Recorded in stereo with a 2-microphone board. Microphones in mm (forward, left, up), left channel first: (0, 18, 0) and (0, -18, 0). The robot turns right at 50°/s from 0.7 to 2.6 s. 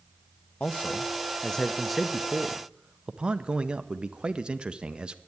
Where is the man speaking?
115° left, 0.8 m; by 5.2 s 150° right, 0.8 m.